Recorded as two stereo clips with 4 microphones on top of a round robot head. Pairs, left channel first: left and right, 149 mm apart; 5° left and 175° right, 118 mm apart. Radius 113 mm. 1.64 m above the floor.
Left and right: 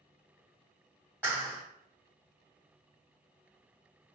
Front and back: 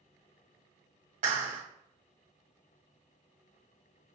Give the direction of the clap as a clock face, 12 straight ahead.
6 o'clock.